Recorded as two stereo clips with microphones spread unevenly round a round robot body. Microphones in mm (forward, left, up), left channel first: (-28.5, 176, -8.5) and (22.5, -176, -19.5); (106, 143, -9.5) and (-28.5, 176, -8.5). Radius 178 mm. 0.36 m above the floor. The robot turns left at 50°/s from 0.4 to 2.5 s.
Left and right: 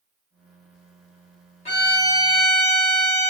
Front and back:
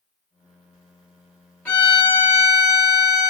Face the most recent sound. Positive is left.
turn(degrees=10)